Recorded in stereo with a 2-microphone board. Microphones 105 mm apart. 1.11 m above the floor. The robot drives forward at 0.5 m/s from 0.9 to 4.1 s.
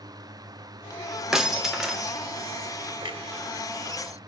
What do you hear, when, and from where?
1.3 s breaking glass: 5° right (ahead or behind), 0.9 m
3.0 s a clunk: 45° right (ahead or behind), 0.9 m